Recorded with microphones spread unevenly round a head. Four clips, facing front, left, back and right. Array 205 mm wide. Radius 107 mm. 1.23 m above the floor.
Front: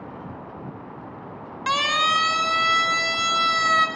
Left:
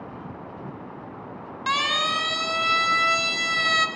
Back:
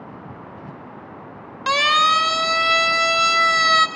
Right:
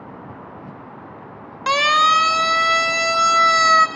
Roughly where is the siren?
Behind right.